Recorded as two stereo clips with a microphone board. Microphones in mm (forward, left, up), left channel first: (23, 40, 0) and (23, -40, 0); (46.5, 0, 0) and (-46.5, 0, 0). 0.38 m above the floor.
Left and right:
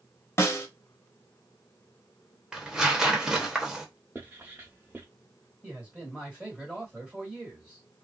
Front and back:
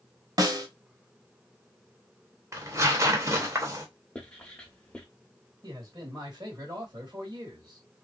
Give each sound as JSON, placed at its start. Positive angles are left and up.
{"t": 0.4, "sound": "a snare drum", "azimuth_deg": 140, "distance_m": 0.8}
{"t": 2.5, "sound": "tearing paper", "azimuth_deg": -165, "distance_m": 0.8}
{"t": 4.2, "sound": "writing", "azimuth_deg": -65, "distance_m": 0.8}
{"t": 5.6, "sound": "a man speaking", "azimuth_deg": -165, "distance_m": 1.9}